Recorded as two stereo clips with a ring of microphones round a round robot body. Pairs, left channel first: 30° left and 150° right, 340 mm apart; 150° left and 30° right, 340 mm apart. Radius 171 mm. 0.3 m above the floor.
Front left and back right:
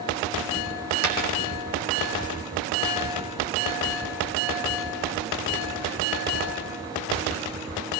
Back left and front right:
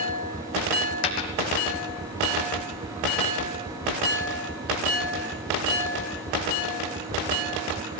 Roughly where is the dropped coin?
Behind.